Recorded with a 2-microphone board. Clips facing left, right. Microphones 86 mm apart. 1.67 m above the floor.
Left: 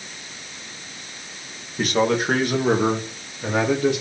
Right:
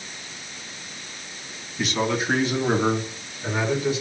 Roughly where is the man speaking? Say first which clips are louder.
Left 4 dB; left.